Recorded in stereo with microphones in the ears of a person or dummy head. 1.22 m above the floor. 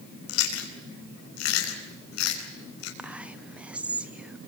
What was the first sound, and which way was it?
Chewing, 85° left.